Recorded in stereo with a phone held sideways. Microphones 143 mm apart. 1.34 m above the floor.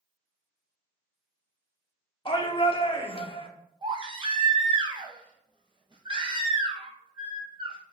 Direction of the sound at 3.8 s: 35° right (ahead or behind).